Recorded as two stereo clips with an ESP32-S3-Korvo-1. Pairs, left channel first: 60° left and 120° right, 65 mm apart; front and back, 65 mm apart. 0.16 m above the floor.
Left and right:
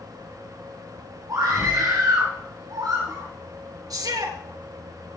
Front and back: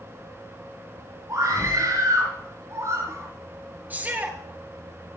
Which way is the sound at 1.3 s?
145° right.